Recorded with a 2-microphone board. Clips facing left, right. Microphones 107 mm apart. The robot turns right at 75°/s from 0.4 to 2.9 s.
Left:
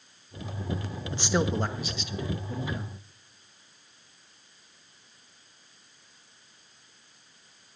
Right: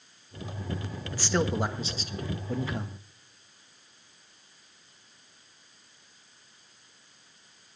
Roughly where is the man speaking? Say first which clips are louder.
Left 1 dB; behind left.